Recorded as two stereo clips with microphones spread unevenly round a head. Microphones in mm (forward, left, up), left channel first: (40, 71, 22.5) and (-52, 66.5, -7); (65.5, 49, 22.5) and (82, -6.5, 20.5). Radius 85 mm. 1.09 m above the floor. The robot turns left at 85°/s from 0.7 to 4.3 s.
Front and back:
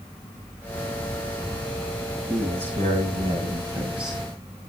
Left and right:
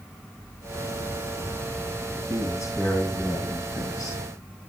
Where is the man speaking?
110° right, 6 m; by 4.2 s 90° left, 6 m.